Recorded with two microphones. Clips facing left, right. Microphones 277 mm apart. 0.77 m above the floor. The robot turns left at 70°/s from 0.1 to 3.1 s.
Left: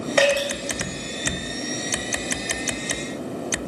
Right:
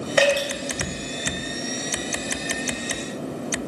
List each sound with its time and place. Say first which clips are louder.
0.2 s dripping: even; 10° right (ahead or behind), 0.7 m; by 0.5 s 10° left (ahead or behind), 0.7 m